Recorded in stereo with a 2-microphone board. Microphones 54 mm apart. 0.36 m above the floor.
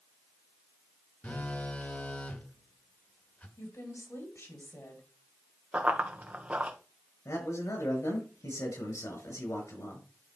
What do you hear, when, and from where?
1.2 s a phone buzzing: 30° left (ahead or behind), 1.1 m
3.6 s a woman speaking: 60° left (ahead or behind), 3 m
5.7 s running footsteps: 20° right (ahead or behind), 1.5 m
7.2 s a man speaking: 80° left, 4.5 m